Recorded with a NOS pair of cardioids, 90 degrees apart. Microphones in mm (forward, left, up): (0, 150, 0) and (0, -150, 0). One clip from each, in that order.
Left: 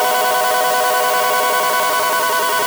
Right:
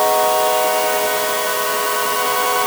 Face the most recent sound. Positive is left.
No sound to turn to.